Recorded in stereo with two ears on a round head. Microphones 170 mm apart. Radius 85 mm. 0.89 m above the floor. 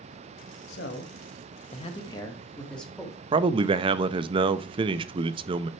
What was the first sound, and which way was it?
A man speaking, 60° left (ahead or behind).